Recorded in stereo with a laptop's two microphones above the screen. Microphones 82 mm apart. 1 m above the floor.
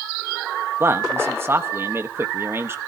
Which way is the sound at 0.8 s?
30° right (ahead or behind).